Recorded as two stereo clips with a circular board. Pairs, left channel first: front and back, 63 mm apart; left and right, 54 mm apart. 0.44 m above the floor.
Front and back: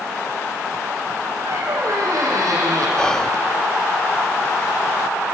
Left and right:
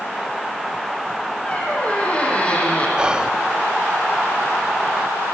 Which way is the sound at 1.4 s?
155° left.